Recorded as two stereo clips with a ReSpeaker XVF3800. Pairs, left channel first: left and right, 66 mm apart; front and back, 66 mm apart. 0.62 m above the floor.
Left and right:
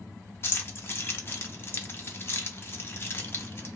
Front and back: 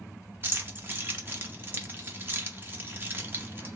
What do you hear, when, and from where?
0.4 s keys jangling: 130° left, 0.6 m